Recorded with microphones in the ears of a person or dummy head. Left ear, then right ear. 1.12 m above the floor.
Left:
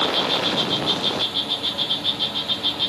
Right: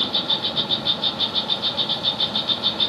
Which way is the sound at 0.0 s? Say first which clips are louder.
Left 1 dB; 65° right (ahead or behind).